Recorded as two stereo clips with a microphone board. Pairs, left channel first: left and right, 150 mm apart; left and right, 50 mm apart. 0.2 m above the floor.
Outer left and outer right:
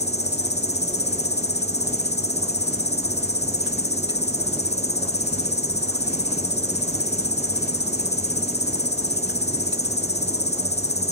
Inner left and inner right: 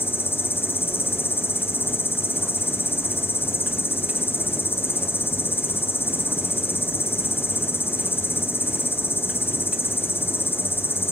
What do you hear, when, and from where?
0.0 s an insect: 45° left (ahead or behind), 1.7 m